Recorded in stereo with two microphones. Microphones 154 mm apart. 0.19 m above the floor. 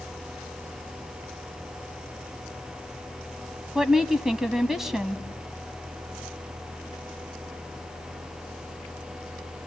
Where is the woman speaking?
5° right (ahead or behind), 1.0 m.